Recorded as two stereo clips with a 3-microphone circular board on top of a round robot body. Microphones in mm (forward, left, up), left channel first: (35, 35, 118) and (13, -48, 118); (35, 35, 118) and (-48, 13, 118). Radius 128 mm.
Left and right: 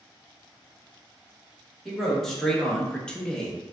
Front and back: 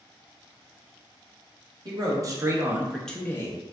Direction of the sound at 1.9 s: 160° left.